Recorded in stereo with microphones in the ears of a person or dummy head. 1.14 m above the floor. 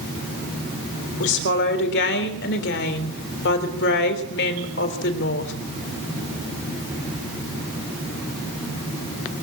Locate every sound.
1.2 s a woman speaking: 65° left (ahead or behind), 3.5 m